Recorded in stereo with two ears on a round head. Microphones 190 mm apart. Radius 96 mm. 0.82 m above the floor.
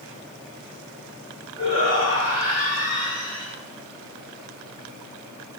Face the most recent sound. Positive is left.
turn(degrees=-80)